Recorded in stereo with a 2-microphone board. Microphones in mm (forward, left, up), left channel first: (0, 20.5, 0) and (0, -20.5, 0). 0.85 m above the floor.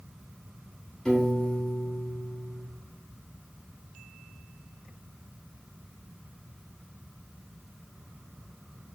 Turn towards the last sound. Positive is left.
turn(degrees=15)  # may be behind; listen again after turning